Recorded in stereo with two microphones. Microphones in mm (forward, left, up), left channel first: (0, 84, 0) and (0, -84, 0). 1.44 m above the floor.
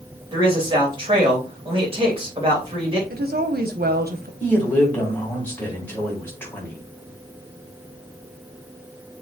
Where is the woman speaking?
70° right (ahead or behind), 0.9 m.